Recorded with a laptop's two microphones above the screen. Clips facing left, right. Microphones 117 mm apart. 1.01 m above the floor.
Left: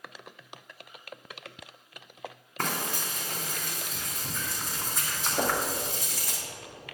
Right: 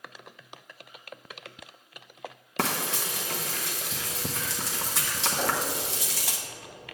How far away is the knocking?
About 1.2 m.